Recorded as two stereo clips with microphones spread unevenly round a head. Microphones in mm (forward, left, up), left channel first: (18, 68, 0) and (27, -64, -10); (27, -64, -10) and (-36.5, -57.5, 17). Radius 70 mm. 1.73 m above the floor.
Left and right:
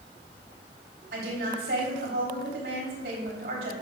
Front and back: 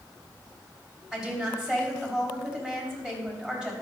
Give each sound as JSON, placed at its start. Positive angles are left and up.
{"t": 1.1, "sound": "a woman speaking", "azimuth_deg": -115, "distance_m": 4.0}